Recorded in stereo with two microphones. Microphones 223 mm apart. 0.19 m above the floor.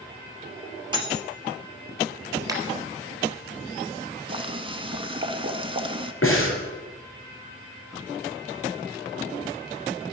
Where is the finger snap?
15° right (ahead or behind), 3 m.